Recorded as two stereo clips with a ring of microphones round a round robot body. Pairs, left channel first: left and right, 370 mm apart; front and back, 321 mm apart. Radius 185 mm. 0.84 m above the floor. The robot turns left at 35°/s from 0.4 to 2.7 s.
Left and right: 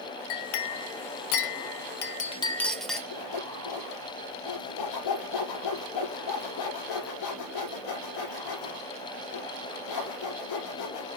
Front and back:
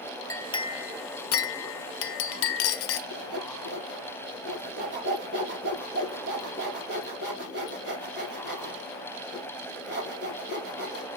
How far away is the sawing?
About 5 m.